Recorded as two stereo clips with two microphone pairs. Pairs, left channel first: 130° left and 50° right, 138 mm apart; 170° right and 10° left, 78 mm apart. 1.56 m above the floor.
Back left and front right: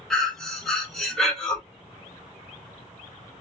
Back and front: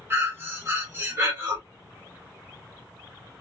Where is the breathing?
40° left, 0.9 m.